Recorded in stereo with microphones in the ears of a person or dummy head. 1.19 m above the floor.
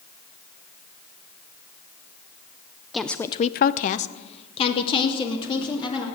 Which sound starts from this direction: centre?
A woman speaking, at 2.9 s.